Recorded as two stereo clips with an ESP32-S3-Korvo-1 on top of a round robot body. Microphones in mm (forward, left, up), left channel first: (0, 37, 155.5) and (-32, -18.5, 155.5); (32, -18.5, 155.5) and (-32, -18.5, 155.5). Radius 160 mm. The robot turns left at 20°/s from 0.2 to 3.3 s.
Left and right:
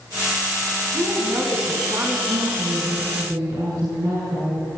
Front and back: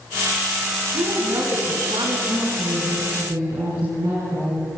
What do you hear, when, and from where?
0.9 s a woman speaking: 160° right, 6.5 m; by 2.2 s 175° left, 6.5 m
2.3 s a woman speaking: 135° right, 8.5 m; by 4.7 s 155° right, 8.5 m